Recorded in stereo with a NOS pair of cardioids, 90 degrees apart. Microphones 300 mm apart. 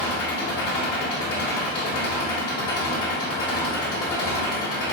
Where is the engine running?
50° left, 1.3 m.